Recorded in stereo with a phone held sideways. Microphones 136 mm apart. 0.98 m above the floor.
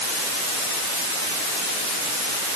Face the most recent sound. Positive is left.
No sound to turn to.